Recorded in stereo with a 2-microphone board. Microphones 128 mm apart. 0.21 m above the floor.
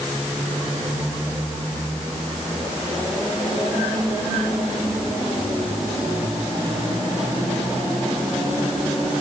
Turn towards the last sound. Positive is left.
No sound to turn to.